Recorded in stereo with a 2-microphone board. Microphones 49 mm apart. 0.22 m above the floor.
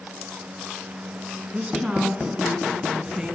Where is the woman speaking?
15° right (ahead or behind), 2 m.